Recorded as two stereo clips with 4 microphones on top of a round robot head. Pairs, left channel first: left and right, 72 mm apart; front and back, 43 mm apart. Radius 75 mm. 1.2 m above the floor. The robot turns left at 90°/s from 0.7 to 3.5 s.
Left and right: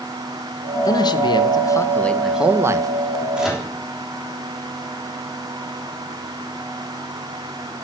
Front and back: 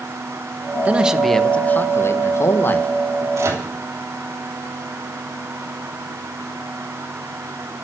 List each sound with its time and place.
0.8 s a man speaking: 125° left, 1.4 m; by 3.2 s 90° right, 1.4 m
3.4 s a microwave: 170° right, 3 m; by 3.7 s 175° left, 3 m